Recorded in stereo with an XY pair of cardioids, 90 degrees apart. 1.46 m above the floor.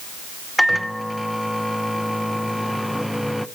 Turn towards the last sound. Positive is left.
turn(degrees=5)